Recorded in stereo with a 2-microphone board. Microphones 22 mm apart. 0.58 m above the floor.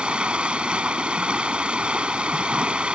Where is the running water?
55° right (ahead or behind).